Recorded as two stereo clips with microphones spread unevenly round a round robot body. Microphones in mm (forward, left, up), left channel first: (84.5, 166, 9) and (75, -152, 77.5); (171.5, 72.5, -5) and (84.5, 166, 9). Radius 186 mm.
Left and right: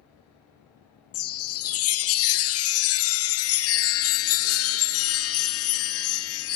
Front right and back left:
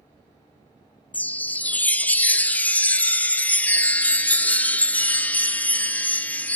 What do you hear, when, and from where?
1.1 s a chime: 35° left, 0.5 m